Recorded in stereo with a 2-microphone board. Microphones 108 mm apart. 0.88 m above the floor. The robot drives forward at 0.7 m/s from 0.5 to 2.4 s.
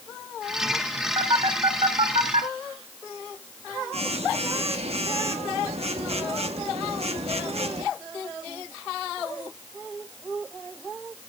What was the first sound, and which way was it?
A phone buzzing, 45° right (ahead or behind).